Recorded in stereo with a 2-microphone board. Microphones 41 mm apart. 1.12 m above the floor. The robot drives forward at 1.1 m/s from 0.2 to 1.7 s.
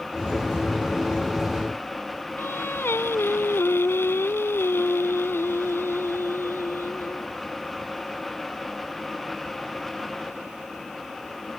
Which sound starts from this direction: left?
Singing, at 2.4 s.